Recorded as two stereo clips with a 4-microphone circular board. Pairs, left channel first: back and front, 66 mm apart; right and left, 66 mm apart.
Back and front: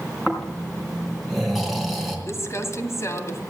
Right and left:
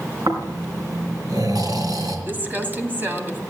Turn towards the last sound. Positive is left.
turn(degrees=145)